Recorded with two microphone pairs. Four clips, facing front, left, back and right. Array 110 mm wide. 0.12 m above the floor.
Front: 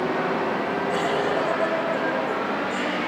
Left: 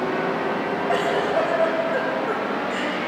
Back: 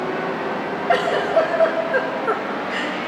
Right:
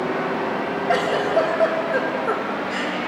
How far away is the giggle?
About 4.5 m.